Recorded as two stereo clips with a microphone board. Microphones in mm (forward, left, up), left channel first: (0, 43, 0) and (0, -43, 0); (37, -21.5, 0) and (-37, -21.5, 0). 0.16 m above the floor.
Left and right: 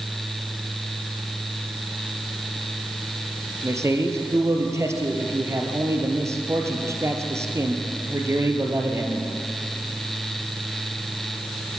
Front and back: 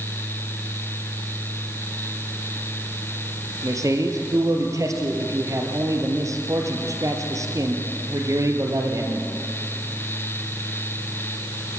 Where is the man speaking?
145° right, 3.5 m.